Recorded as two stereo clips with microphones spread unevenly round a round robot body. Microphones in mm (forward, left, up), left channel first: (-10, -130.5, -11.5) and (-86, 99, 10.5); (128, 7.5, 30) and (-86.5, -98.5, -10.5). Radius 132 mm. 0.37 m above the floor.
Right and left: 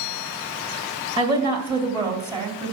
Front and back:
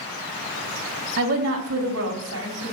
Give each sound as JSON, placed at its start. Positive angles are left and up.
{"t": 1.2, "sound": "a woman speaking", "azimuth_deg": 180, "distance_m": 2.0}